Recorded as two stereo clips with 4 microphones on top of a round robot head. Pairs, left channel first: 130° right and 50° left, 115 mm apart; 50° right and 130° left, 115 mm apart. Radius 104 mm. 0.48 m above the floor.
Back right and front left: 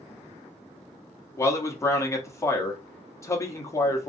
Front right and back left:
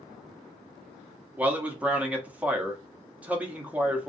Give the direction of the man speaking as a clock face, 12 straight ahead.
5 o'clock.